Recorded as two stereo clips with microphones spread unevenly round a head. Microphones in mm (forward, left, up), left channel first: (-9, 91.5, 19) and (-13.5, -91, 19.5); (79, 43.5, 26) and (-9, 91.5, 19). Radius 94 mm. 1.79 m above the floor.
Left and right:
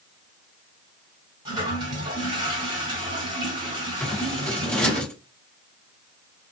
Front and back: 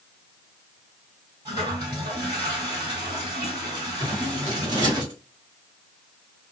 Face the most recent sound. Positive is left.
turn(degrees=160)